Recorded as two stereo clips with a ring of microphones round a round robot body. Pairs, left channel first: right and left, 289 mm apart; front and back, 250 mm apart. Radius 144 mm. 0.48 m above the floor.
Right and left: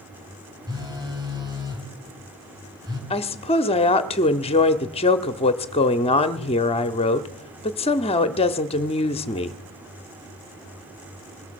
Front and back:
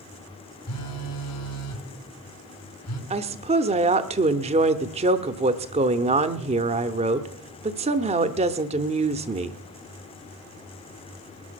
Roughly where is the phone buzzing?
Ahead.